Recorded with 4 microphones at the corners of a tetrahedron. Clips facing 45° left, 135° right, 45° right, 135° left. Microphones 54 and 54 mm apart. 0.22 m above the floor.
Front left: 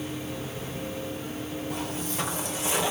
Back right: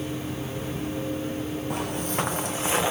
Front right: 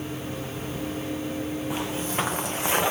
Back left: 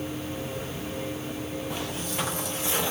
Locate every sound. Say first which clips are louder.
1.7 s footsteps: back right 5 dB, front right 4 dB; 115° right, 1.1 m; by 2.9 s 80° right, 1.4 m